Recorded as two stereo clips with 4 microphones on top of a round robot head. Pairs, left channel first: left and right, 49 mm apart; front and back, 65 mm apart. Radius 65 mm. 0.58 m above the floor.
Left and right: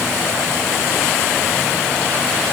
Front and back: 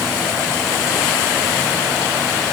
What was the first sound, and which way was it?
Only background noise.